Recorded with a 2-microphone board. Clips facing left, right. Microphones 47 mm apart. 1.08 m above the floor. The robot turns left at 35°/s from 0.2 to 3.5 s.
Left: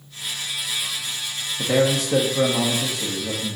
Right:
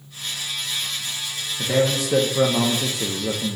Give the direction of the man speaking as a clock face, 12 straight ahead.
11 o'clock.